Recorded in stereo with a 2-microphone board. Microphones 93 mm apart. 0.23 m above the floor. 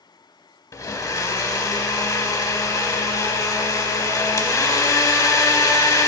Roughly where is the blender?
Left.